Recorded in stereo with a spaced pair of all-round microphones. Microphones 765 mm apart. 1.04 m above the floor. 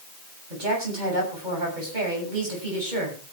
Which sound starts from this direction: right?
A woman speaking, at 0.5 s.